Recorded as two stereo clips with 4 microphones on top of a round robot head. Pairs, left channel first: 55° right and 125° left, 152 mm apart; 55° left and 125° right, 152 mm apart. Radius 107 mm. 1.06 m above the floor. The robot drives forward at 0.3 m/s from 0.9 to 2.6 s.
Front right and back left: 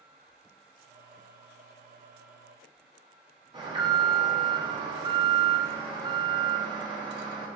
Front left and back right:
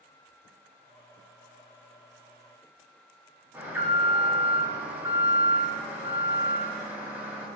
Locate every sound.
3.5 s an alarm: 165° left, 1.7 m